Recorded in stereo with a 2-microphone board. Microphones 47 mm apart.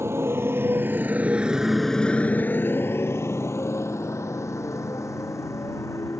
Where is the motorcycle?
60° right (ahead or behind); by 6.2 s 80° left.